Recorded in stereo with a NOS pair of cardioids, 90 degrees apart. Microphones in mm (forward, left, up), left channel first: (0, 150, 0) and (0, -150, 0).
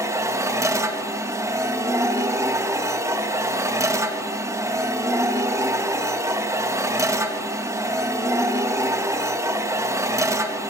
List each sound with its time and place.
0.0 s a machine running: 10° right, 1.7 m